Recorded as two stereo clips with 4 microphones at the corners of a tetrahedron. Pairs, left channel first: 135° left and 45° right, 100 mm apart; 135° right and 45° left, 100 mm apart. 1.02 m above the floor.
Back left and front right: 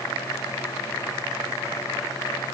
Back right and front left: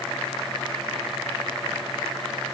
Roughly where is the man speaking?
No man speaking in this recording.